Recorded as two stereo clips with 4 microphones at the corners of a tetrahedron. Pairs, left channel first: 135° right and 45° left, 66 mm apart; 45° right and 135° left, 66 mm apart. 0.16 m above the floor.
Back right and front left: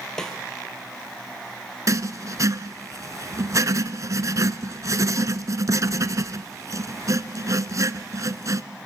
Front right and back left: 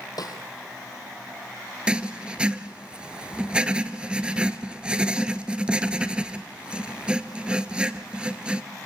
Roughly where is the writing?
Ahead left.